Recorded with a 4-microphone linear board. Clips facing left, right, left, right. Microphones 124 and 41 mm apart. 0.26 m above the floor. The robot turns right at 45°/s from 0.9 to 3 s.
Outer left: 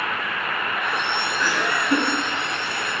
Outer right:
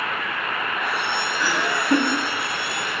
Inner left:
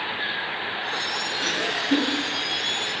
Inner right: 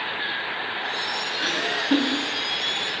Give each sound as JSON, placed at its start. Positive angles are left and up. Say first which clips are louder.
{"t": 1.4, "sound": "laughter", "louder": "even, inner right 1 dB", "azimuth_deg": -165, "distance_m": 1.8}